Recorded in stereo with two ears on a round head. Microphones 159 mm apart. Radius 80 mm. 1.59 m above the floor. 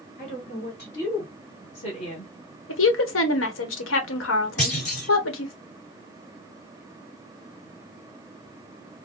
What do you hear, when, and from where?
0.2 s a woman speaking: 45° left (ahead or behind), 2.5 m; by 2.3 s 30° left (ahead or behind), 1.2 m
2.7 s a woman speaking: 85° left, 1.2 m
4.6 s a clunk: 40° left (ahead or behind), 2.5 m